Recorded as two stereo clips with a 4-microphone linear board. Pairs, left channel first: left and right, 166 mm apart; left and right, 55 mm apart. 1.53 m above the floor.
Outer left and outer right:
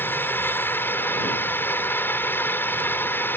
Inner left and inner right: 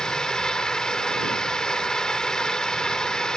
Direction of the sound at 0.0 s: 15° left (ahead or behind).